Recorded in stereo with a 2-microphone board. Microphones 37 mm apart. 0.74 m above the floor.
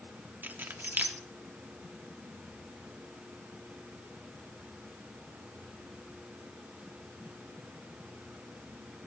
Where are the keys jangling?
55° right (ahead or behind), 0.9 m.